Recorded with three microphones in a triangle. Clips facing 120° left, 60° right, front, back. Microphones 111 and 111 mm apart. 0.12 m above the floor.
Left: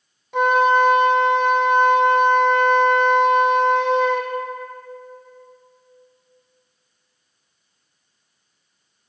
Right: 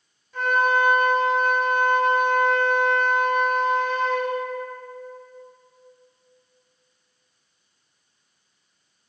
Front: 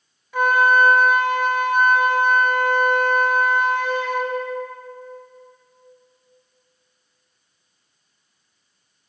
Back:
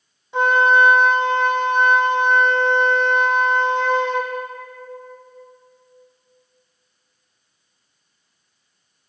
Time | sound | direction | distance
0.3 | a flute | 115° left | 1.2 m